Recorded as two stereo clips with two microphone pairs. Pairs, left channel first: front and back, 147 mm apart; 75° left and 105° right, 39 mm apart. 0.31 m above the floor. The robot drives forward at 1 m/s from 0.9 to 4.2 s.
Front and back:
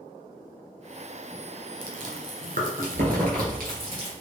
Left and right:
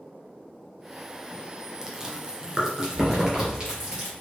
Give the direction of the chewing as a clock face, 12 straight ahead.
6 o'clock.